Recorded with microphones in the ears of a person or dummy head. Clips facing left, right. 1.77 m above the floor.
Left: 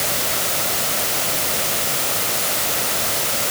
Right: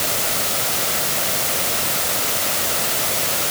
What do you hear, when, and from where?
Only background noise.